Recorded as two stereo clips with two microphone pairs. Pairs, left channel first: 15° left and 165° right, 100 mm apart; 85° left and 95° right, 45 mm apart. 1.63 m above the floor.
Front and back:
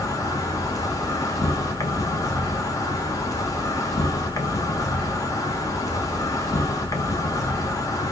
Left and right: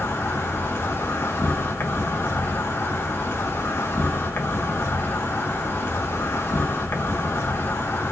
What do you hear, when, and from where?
0.0 s an insect: 70° left, 1.1 m